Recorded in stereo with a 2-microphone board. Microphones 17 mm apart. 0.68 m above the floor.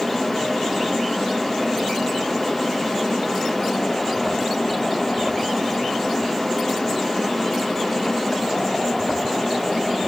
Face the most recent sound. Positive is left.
No sound to turn to.